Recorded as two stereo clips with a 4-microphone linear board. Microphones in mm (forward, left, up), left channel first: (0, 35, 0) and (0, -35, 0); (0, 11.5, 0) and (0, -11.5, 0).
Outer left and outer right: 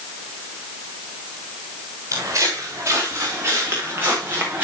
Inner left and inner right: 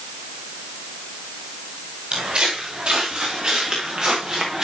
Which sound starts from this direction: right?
Footsteps, at 2.1 s.